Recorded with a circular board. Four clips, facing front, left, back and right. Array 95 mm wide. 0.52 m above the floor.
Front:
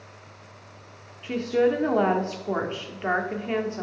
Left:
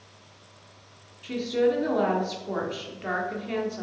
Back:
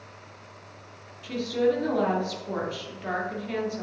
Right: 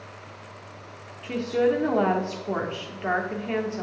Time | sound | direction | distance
1.2 | a woman speaking | 25° right | 1.1 m